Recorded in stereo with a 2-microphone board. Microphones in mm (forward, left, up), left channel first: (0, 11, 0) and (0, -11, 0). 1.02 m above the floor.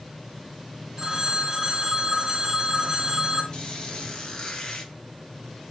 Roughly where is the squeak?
Left.